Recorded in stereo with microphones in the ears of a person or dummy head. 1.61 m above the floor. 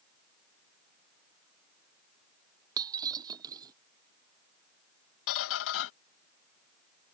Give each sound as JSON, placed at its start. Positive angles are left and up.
{"t": 2.8, "sound": "breaking glass", "side_deg": -25}
{"t": 5.3, "sound": "a squeak", "side_deg": 65}